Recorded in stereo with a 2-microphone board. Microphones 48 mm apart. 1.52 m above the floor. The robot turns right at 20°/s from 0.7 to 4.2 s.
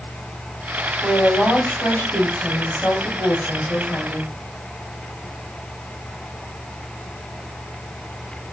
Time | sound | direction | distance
1.0 | a woman speaking | 75° left | 3 m